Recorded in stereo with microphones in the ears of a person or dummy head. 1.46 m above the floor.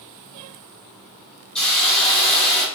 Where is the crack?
I don't hear a crack.